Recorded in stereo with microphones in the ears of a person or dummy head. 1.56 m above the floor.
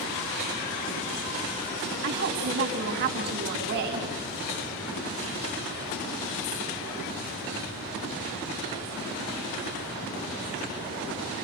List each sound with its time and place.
2.0 s a woman speaking: 50° right (ahead or behind), 3 m